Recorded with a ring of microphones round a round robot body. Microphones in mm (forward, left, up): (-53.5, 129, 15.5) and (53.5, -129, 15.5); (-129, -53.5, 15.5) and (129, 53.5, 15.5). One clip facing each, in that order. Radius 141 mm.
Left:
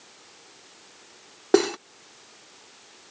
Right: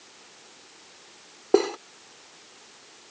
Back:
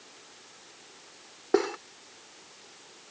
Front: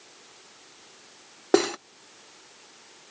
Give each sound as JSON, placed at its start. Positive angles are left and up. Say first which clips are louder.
{"t": 1.5, "sound": "cutlery clinking", "louder": "left 1 dB, front 4 dB", "azimuth_deg": 55}